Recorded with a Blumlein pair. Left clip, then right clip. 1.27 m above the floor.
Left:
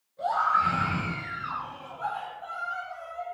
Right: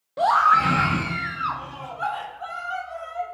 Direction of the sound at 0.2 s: 45° right.